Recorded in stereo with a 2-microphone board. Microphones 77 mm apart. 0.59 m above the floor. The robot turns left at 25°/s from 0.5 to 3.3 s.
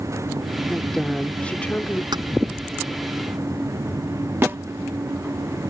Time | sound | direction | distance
0.7 | a woman speaking | straight behind | ?
2.1 | keys jangling | 75° right (ahead or behind) | ?
4.4 | a snare drum | 35° right (ahead or behind) | ?